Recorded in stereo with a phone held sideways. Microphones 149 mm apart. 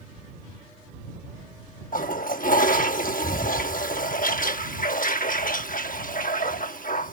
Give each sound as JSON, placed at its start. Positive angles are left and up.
{"t": 1.9, "sound": "a toilet flushing", "side_deg": 70}